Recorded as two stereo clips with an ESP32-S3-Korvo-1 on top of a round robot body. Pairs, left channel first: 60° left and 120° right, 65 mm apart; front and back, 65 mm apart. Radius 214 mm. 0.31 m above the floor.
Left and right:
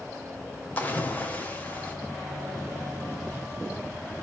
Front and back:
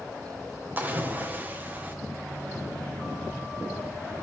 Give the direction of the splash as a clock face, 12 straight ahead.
8 o'clock.